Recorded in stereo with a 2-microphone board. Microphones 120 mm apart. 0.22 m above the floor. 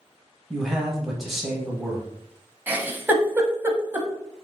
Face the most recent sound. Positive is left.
turn(degrees=-15)  # may be behind; listen again after turning